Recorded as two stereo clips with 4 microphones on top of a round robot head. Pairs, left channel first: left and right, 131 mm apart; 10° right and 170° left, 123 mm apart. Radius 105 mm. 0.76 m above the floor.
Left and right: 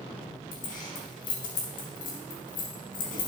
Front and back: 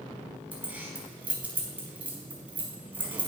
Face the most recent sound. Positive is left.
turn(degrees=90)